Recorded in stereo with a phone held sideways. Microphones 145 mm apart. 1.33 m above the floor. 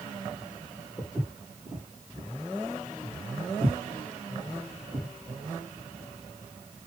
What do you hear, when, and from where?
1.0 s footsteps: 10° right (ahead or behind), 1.9 m; by 5.1 s 45° right (ahead or behind), 1.9 m